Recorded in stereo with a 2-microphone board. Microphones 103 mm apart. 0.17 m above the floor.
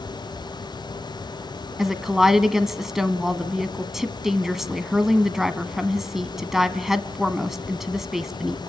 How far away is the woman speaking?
About 1.1 m.